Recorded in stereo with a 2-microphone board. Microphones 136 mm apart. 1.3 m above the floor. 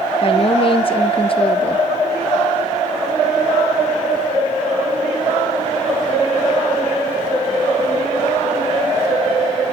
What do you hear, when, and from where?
0.2 s a woman speaking: 40° left (ahead or behind), 0.7 m